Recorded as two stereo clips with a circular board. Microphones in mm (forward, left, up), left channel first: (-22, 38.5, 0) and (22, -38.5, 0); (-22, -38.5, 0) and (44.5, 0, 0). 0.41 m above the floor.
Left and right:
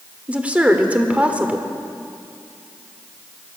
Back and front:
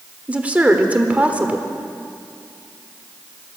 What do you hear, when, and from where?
0.3 s a woman speaking: 10° right, 1.2 m